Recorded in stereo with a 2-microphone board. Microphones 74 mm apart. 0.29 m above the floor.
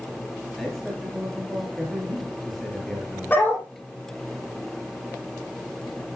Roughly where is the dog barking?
Left.